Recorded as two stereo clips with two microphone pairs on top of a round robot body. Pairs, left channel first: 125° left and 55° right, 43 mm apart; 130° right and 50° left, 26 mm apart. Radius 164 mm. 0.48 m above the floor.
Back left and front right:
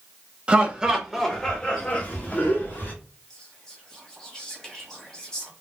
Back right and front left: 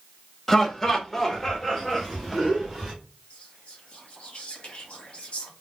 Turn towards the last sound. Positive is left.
turn(degrees=-165)